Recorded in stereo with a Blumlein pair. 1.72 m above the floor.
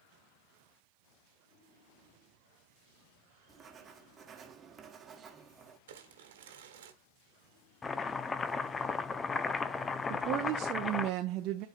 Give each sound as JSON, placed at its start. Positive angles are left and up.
{"t": 3.5, "sound": "writing", "azimuth_deg": -20, "distance_m": 1.2}
{"t": 5.9, "sound": "crumpling", "azimuth_deg": -55, "distance_m": 1.3}
{"t": 7.8, "sound": "chopping", "azimuth_deg": 15, "distance_m": 0.6}
{"t": 10.1, "sound": "a woman speaking", "azimuth_deg": -35, "distance_m": 0.7}